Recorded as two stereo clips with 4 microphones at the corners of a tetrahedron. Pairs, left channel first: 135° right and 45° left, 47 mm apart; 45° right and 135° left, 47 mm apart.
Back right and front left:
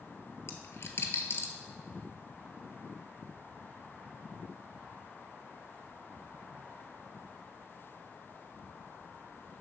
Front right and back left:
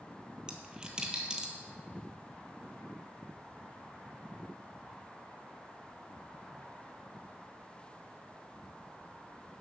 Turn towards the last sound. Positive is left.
turn(degrees=-155)